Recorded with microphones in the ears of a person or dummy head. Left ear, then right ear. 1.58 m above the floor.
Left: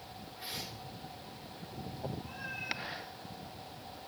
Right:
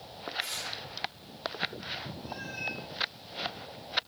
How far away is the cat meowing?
About 6 m.